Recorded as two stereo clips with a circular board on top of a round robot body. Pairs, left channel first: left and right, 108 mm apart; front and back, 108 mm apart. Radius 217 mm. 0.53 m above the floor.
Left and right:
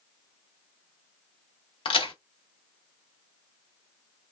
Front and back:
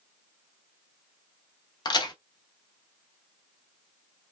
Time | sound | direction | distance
1.9 | a crack | 50° left | 0.8 m